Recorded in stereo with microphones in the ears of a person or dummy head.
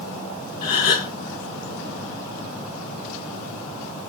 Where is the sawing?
No sawing in this recording.